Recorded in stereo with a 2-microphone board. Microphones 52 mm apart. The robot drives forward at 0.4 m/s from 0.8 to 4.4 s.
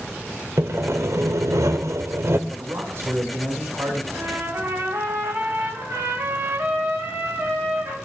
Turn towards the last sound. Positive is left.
turn(degrees=-70)  # may be behind; listen again after turning